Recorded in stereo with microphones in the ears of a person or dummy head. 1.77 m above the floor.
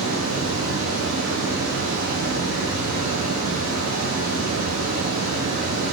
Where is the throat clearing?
I don't hear throat clearing.